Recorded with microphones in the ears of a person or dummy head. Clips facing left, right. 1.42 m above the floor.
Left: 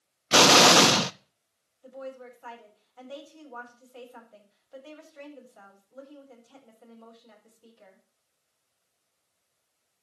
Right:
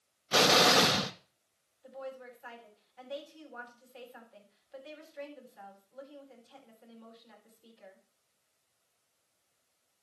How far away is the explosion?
About 0.7 m.